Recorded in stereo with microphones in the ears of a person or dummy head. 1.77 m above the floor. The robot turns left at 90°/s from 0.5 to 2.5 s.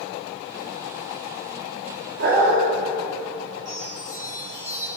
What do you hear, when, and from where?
2.2 s a dog barking: 45° right (ahead or behind), 1.7 m; by 2.6 s 30° right (ahead or behind), 1.7 m
3.6 s a chime: 15° left (ahead or behind), 1.4 m